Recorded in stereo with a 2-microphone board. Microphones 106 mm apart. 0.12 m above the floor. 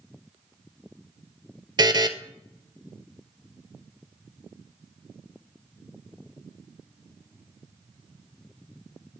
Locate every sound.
1.8 s a buzzer: 45° right (ahead or behind), 0.6 m